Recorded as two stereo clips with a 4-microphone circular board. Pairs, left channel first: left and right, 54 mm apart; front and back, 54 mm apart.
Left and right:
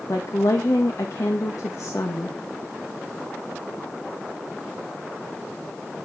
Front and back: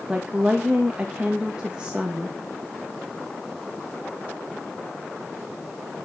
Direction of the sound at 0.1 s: 105° left.